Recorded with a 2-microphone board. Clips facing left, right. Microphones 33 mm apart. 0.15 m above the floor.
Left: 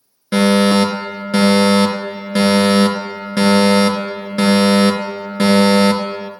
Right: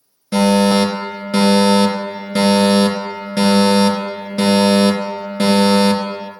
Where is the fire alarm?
30° left (ahead or behind), 3 m.